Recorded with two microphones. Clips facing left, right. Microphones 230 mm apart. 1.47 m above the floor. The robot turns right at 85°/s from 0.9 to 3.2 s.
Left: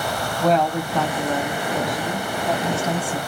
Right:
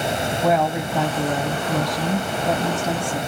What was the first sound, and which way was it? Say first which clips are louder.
A woman speaking: left 2 dB; 175° right.